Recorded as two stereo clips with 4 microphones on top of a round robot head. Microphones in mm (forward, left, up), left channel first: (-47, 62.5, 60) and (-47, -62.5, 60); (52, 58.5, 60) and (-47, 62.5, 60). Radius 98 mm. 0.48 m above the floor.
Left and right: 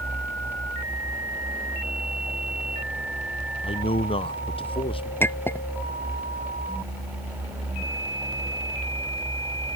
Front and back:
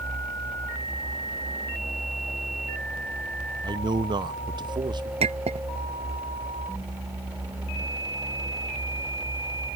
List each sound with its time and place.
3.6 s a man speaking: 135° left
5.2 s a clink: 165° left